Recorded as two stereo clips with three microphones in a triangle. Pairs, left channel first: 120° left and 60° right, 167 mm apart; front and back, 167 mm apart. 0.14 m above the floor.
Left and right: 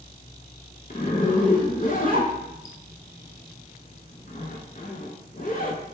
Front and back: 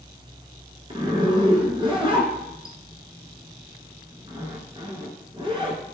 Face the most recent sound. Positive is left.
turn(degrees=130)